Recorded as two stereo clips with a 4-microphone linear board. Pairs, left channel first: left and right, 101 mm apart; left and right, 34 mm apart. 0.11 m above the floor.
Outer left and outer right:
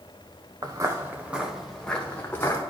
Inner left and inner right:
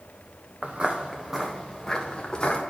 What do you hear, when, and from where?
0.6 s footsteps: 40° right (ahead or behind), 1.0 m; by 2.6 s 25° left (ahead or behind), 1.8 m